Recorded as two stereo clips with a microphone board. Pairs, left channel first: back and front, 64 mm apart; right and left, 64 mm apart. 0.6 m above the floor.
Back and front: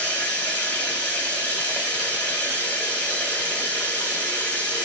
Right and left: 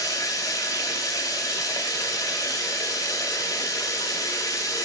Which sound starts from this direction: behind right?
Running water, at 0.0 s.